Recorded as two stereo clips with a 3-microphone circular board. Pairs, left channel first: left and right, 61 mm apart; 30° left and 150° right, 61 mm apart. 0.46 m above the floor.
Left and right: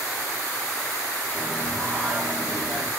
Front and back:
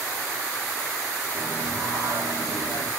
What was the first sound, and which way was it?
Singing, straight ahead.